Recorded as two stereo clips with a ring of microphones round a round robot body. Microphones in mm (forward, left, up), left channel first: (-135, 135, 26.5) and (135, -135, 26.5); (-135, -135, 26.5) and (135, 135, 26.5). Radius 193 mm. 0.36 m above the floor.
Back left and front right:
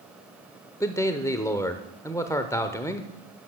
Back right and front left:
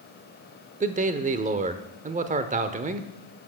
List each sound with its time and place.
0.8 s a man speaking: 65° left, 0.8 m